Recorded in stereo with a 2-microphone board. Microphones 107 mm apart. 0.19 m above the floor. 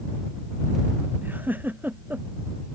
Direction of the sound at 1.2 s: 15° right (ahead or behind).